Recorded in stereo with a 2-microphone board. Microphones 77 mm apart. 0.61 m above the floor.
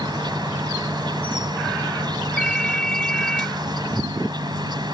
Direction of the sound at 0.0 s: 65° right (ahead or behind).